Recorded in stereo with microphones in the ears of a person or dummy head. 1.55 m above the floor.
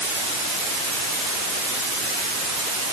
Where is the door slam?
I don't hear a door slam.